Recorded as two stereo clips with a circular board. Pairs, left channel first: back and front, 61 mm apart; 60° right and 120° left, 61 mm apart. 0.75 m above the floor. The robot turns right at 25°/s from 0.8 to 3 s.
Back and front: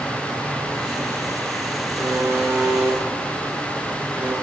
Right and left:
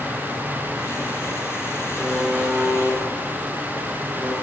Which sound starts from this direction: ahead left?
A buzzer, at 2.0 s.